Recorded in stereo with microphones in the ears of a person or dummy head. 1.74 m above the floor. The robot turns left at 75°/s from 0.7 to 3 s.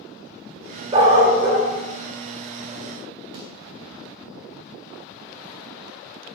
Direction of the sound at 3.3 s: 25° right (ahead or behind).